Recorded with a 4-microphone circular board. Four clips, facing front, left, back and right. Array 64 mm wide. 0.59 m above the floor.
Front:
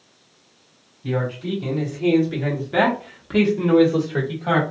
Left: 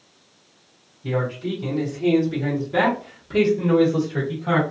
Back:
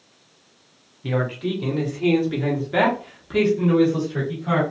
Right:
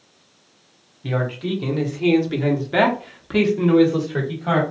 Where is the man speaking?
130° right, 1.5 m; by 4.6 s 35° right, 1.5 m.